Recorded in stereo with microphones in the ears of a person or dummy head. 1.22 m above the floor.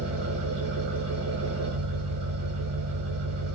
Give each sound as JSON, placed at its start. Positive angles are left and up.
{"t": 0.0, "sound": "an engine running", "side_deg": -70, "distance_m": 6.5}